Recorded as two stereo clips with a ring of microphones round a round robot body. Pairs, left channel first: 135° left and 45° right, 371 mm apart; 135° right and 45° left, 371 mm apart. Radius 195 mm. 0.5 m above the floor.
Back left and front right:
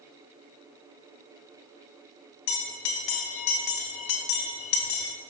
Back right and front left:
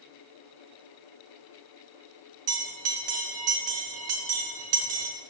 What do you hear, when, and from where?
2.5 s a bell: 100° left, 0.8 m